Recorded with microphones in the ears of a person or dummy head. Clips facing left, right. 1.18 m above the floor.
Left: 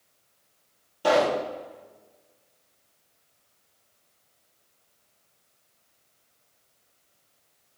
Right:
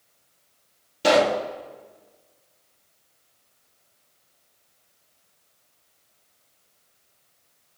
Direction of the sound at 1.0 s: 30° right (ahead or behind).